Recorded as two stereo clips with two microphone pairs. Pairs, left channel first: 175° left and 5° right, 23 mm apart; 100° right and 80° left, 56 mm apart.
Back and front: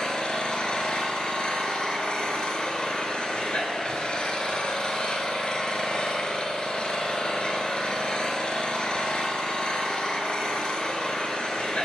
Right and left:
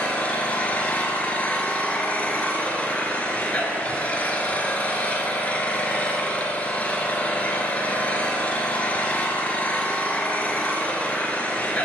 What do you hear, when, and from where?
0.0 s an engine running: 160° right, 0.7 m